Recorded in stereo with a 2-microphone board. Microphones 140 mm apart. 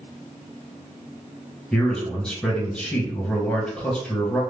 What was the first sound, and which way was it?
A man speaking, 5° left (ahead or behind).